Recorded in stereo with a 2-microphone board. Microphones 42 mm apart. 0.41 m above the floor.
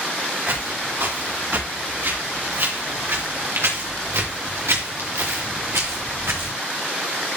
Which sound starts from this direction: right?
Footsteps, at 0.5 s.